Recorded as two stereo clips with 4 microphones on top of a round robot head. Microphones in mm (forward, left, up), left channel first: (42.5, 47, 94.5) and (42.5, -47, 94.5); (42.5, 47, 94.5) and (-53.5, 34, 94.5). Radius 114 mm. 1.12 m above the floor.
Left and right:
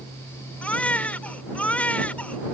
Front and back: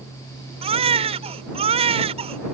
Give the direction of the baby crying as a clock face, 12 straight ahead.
6 o'clock.